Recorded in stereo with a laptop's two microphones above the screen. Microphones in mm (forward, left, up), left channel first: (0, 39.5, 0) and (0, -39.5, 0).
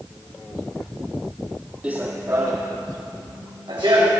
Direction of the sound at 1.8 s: 15° right (ahead or behind).